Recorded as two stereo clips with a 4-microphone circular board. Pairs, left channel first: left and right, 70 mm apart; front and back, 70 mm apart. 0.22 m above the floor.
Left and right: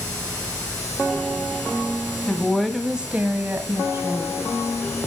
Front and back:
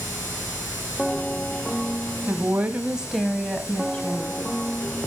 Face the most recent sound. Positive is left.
turn(degrees=-55)